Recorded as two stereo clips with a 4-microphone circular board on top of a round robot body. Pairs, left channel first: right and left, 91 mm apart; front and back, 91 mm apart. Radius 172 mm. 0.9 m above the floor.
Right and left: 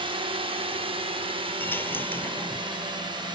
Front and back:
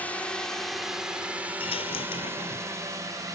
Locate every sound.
0.0 s a drone: 75° left; by 3.4 s 130° left
1.6 s a dropped coin: 20° right